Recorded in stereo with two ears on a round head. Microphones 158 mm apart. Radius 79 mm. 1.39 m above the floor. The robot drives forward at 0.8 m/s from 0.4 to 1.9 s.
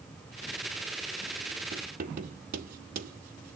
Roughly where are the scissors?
No scissors in this recording.